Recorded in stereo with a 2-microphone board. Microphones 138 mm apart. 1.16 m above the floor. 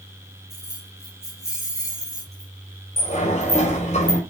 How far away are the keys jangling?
About 5 m.